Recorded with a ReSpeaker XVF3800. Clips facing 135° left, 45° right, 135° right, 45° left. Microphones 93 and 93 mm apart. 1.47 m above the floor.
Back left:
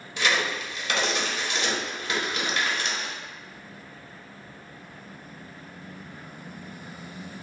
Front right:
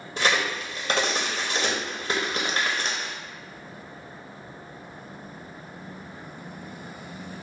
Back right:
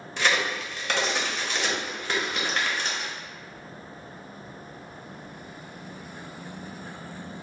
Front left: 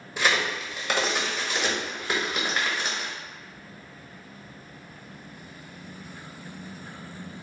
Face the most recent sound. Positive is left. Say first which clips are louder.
# front right 1 dB, even
turn(degrees=-30)